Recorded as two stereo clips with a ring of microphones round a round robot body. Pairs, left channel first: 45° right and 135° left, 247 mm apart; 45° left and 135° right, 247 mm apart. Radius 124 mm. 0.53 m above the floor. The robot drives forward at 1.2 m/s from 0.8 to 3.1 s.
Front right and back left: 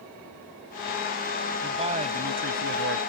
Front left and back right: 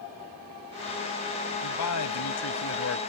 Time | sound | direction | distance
1.6 | a man speaking | 65° left | ?